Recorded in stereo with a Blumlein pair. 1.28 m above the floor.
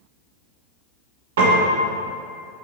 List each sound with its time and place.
1.4 s a piano: 55° right, 1.2 m